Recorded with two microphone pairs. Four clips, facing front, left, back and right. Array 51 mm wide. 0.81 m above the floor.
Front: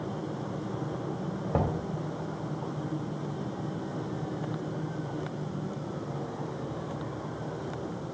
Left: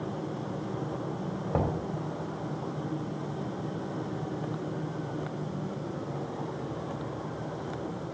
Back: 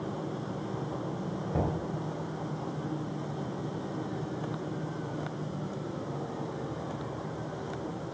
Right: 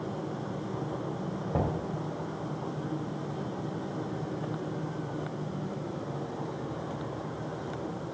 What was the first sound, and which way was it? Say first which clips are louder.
Knocking: left 1 dB, front 2 dB; 45° left.